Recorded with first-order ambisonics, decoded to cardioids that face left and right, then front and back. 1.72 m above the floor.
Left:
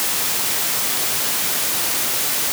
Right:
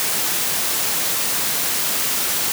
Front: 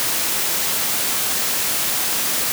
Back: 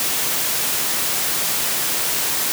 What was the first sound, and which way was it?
Only background noise.